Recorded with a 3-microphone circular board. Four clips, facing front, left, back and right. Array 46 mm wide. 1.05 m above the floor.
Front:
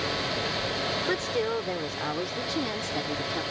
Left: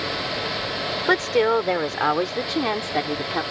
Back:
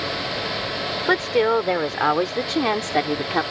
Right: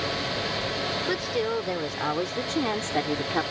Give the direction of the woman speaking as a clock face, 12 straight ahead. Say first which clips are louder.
Left 11 dB, back 12 dB; 8 o'clock.